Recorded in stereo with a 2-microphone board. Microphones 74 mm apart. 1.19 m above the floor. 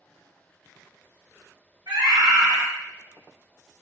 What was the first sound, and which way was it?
A scream, 70° right (ahead or behind).